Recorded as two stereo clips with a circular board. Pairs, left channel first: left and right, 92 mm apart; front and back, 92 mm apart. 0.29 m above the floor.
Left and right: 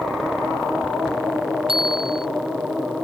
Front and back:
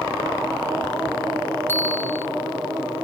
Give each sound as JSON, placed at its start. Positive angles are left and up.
{"t": 1.7, "sound": "a bicycle bell", "azimuth_deg": -65}